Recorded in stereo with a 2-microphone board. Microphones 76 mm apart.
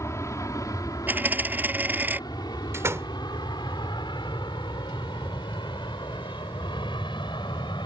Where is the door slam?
35° right (ahead or behind).